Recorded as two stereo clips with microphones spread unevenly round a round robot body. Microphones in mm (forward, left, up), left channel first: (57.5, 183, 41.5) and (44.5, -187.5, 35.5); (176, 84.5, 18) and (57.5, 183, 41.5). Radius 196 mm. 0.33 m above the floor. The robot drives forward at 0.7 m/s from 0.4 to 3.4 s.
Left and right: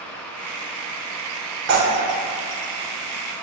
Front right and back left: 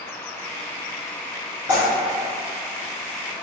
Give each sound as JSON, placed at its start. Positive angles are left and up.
{"t": 1.7, "sound": "tearing paper", "azimuth_deg": -70, "distance_m": 1.0}